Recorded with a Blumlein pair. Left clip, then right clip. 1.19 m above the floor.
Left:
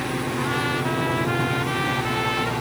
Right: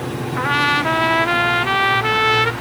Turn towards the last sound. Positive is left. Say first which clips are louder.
# right 10 dB
turn(degrees=-60)